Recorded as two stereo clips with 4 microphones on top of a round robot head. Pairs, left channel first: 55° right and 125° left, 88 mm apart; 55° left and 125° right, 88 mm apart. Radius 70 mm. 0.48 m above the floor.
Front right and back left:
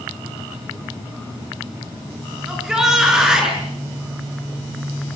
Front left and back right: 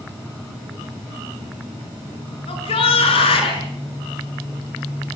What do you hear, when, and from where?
2.5 s a shout: 40° left, 7 m